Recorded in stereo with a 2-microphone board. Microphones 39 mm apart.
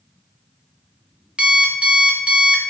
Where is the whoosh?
No whoosh in this recording.